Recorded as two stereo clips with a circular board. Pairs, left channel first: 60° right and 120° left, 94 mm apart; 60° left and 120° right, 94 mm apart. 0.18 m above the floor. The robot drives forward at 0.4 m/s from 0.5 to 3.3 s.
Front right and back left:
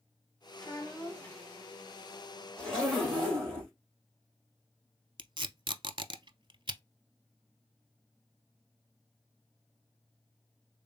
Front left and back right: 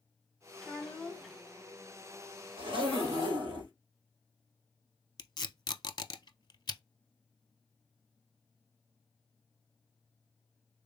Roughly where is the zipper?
Behind right.